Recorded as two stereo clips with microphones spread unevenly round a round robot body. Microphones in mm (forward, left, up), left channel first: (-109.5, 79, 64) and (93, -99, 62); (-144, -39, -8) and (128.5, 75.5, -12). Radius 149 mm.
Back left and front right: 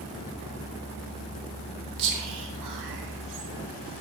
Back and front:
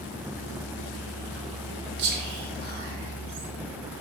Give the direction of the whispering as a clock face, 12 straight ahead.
1 o'clock.